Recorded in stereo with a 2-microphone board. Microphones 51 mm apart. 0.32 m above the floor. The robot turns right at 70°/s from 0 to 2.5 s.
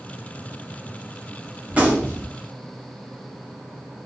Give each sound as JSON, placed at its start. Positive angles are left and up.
{"t": 1.7, "sound": "a gunshot", "azimuth_deg": -145, "distance_m": 0.9}